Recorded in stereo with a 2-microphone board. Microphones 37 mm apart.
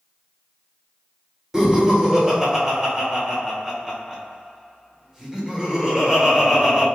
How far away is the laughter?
About 1.1 m.